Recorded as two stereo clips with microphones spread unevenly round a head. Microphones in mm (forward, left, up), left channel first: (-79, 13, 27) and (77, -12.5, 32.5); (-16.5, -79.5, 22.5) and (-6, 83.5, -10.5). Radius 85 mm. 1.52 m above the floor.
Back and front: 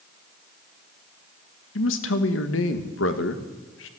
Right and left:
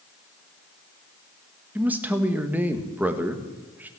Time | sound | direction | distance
1.8 | a man speaking | 170° left | 1.5 m